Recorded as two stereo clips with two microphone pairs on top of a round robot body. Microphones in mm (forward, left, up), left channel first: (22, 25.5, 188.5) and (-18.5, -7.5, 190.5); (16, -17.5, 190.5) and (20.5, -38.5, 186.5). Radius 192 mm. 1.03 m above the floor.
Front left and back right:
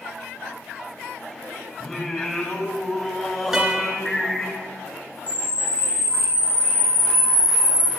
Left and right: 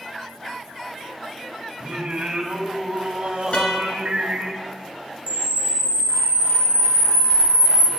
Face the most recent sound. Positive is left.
turn(degrees=-25)